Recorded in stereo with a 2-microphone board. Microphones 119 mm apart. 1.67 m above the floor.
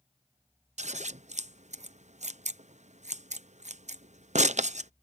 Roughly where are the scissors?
Right.